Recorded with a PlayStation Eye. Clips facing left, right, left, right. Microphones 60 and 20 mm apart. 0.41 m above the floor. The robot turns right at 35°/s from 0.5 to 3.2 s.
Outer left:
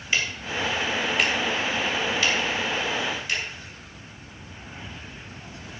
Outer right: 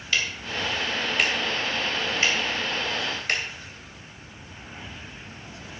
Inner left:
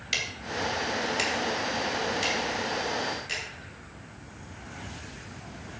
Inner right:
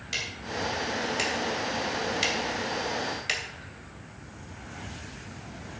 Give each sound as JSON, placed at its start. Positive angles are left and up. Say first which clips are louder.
{"t": 0.1, "sound": "ticking", "louder": "outer left 1 dB, inner left 2 dB", "side_deg": 20, "distance_m": 2.5}